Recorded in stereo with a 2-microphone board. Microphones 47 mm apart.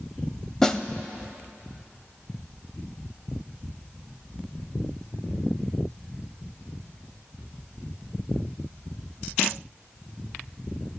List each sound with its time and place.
0.6 s a snare drum: 10° left (ahead or behind), 0.6 m